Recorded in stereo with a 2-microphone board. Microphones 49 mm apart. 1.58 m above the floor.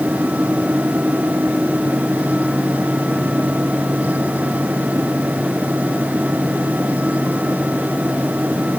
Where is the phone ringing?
I don't hear a phone ringing.